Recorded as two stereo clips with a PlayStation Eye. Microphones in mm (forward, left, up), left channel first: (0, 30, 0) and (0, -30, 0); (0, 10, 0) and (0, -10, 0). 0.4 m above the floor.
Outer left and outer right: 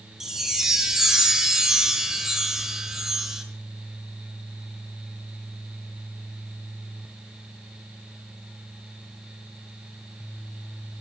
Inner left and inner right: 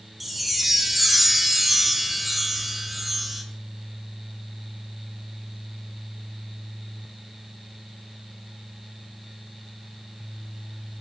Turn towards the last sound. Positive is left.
turn(degrees=-10)  # may be behind; listen again after turning